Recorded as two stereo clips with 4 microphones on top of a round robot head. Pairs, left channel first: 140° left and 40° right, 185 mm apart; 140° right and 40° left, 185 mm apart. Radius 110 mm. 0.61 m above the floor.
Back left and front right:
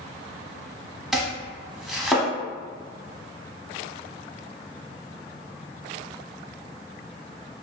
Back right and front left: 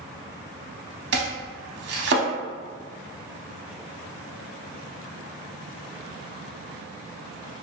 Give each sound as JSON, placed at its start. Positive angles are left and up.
{"t": 1.1, "sound": "chopping", "azimuth_deg": 50, "distance_m": 0.6}